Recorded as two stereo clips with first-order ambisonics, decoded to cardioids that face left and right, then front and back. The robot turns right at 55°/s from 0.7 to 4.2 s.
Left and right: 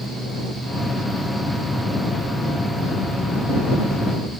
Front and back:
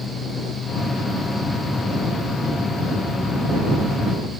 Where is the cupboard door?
No cupboard door in this recording.